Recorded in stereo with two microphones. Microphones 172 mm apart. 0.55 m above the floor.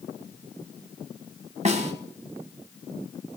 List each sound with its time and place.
1.6 s a snare drum: 40° right (ahead or behind), 1.5 m